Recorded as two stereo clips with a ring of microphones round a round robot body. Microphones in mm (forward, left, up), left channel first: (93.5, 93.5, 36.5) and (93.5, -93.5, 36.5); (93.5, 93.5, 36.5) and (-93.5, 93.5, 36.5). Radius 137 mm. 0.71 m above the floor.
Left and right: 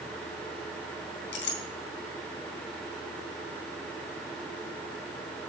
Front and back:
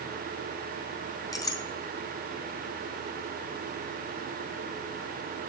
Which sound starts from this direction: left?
A clink, at 1.3 s.